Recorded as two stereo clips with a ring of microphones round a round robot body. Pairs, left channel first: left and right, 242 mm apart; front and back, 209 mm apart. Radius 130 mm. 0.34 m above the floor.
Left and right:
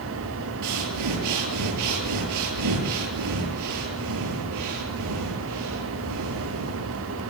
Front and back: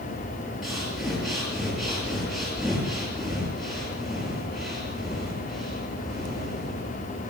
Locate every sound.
0.6 s breathing: 90° right, 8 m